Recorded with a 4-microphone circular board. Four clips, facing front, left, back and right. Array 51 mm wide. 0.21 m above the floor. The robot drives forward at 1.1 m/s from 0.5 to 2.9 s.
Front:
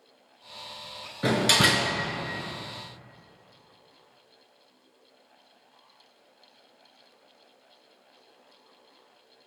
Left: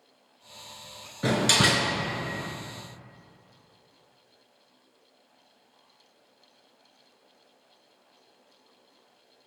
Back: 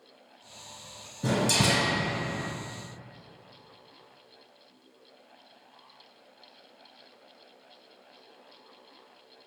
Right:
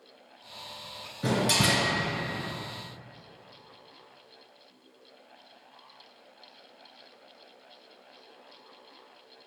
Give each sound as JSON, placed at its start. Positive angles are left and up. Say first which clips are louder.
{"t": 1.2, "sound": "a door slam", "louder": "left 3 dB, front 3 dB", "azimuth_deg": 20, "distance_m": 2.5}